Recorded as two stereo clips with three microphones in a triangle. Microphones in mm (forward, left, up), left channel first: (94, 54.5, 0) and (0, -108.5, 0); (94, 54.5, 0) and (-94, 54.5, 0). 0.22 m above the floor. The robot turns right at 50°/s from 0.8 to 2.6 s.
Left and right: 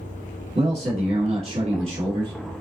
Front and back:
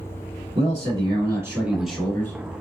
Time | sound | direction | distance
0.6 | a man speaking | 145° right | 1.5 m